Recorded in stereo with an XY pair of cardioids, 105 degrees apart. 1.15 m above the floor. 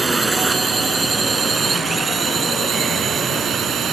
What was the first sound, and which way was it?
A drone, 25° right.